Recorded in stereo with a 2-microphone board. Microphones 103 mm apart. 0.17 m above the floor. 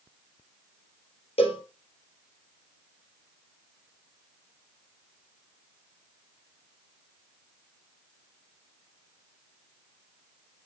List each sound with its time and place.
1.4 s a cowbell: 70° left (ahead or behind), 3 m